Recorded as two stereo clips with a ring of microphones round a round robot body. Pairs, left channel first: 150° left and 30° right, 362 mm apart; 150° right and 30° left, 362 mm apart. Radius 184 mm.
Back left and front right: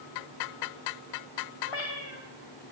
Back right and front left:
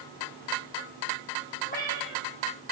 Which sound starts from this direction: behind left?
A cat meowing, at 1.6 s.